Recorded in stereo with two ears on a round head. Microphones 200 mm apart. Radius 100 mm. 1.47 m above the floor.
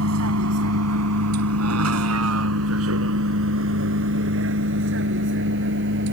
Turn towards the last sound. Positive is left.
turn(degrees=-55)  # may be behind; listen again after turning